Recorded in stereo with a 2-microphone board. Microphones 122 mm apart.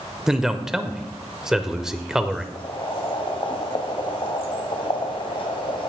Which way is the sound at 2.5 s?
50° left (ahead or behind).